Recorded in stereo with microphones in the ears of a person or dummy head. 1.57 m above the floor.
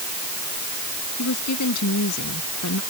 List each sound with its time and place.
1.2 s a woman speaking: 80° left